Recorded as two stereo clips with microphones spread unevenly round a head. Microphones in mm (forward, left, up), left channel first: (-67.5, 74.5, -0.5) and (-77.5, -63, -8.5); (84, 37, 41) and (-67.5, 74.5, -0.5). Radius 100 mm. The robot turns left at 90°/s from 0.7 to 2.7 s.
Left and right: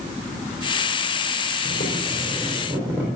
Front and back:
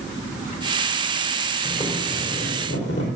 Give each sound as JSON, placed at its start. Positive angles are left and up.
{"t": 1.6, "sound": "boiling", "azimuth_deg": 80, "distance_m": 4.0}